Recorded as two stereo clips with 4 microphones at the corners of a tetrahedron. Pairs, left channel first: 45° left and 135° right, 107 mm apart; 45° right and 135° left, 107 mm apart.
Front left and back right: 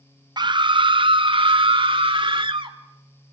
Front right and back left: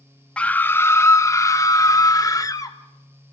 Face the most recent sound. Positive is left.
turn(degrees=-100)